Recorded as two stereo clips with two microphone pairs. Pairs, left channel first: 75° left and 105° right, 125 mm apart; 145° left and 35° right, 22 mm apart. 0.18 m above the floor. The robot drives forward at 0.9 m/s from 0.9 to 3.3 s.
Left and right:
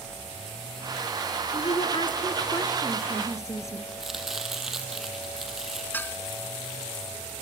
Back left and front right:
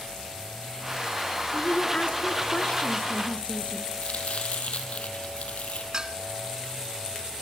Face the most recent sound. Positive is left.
turn(degrees=5)